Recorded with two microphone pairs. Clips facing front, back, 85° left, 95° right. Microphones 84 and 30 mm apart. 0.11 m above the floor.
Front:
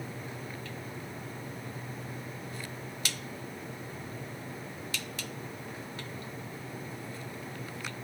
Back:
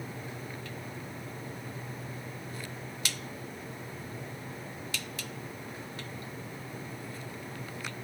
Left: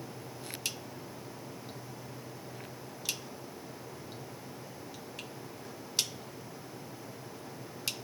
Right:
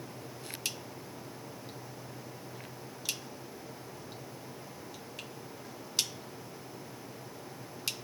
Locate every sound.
Only background noise.